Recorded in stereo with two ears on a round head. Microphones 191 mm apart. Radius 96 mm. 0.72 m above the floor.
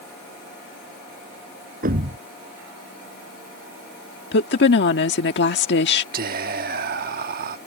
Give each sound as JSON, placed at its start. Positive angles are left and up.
{"t": 1.8, "sound": "a thud", "side_deg": -40}
{"t": 4.3, "sound": "a woman speaking", "side_deg": 55}
{"t": 6.1, "sound": "whispering", "side_deg": -45}